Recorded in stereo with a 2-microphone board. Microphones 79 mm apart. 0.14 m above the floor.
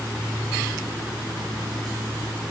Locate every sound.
Only background noise.